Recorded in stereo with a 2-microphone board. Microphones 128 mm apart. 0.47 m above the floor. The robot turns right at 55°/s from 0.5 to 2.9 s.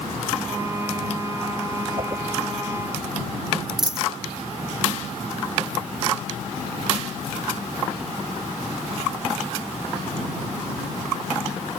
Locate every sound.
2.0 s a whoosh: 40° right (ahead or behind); by 2.2 s 25° right (ahead or behind)
3.8 s a dropped coin: 5° right (ahead or behind)